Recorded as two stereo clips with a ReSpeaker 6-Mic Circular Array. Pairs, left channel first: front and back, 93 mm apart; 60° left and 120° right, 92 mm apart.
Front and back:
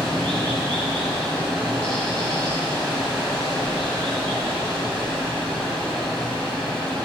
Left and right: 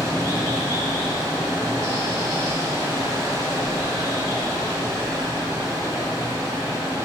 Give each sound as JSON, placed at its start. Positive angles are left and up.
{"t": 0.0, "sound": "running water", "azimuth_deg": -75, "distance_m": 1.6}